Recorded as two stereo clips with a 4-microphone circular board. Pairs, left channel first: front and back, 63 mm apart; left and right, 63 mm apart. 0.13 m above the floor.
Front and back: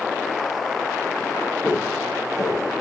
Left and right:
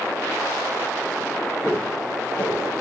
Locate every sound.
1.6 s footsteps: 25° left, 5 m; by 2.7 s 30° left, 4.5 m